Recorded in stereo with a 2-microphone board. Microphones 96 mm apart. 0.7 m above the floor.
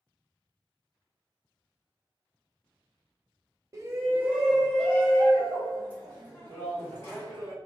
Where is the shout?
35° right (ahead or behind), 0.5 m; by 7.5 s 30° left (ahead or behind), 2.0 m.